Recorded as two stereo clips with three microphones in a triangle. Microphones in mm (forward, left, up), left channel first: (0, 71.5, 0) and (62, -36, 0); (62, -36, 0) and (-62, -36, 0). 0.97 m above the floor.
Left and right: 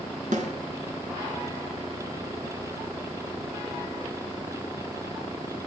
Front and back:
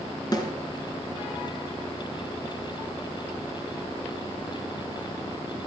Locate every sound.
0.3 s a snare drum: 55° right, 3 m